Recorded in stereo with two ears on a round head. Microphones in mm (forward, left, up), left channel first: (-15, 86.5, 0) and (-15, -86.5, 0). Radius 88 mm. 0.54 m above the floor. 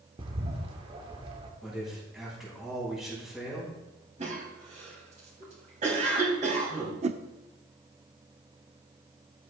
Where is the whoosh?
35° right (ahead or behind), 0.5 m.